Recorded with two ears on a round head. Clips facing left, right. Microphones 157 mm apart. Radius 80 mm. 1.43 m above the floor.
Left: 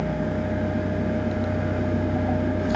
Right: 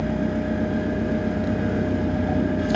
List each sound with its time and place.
0.0 s an engine running: 40° right (ahead or behind), 2.0 m